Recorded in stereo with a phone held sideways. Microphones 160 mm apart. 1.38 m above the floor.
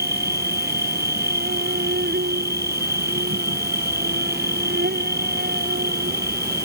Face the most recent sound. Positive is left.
turn(degrees=-85)